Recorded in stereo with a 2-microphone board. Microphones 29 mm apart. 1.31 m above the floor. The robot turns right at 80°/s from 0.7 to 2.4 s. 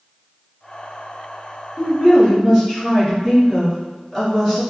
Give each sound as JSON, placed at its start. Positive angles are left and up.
{"t": 1.8, "sound": "a woman speaking", "azimuth_deg": 115, "distance_m": 1.2}